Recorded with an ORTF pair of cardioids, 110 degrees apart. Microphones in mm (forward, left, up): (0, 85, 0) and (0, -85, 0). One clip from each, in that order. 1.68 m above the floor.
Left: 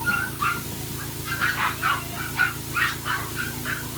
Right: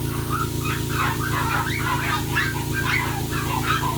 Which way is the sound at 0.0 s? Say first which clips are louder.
Left 4 dB; 50° right.